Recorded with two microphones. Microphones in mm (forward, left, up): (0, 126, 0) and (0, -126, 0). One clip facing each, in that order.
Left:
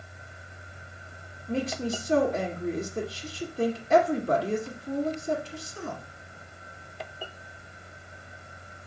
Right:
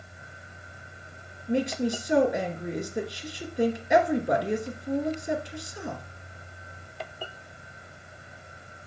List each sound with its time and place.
1.5 s a woman speaking: 15° right (ahead or behind), 1.6 m